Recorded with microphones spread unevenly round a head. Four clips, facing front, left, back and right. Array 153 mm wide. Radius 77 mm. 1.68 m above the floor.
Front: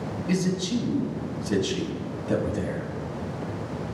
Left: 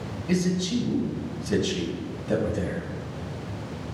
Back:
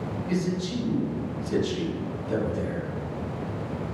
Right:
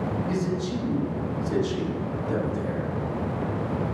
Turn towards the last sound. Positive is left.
turn(degrees=40)